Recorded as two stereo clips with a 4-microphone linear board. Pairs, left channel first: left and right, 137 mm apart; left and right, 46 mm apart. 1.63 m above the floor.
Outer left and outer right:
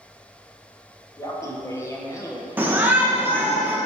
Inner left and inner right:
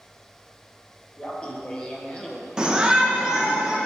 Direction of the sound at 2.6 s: 15° right (ahead or behind).